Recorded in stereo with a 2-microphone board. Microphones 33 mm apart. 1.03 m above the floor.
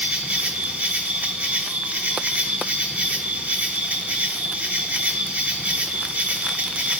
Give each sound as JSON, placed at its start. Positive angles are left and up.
{"t": 0.0, "sound": "an insect", "side_deg": -65, "distance_m": 1.3}